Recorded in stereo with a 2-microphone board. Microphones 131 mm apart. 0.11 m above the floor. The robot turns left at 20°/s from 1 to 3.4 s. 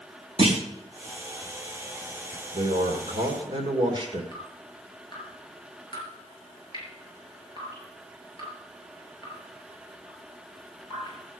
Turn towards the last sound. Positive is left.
turn(degrees=35)  # may be behind; listen again after turning